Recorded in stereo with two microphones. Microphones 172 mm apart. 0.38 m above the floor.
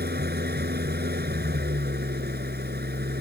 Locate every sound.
0.0 s an engine running: 70° right (ahead or behind)